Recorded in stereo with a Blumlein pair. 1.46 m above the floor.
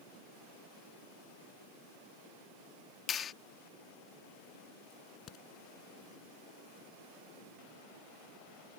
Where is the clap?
25° left.